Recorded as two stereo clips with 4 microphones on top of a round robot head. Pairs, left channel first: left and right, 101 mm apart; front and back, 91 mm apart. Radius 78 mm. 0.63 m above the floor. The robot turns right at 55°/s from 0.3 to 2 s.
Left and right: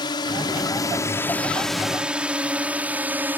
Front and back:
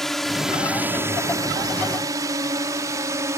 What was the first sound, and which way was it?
A drone, 85° left.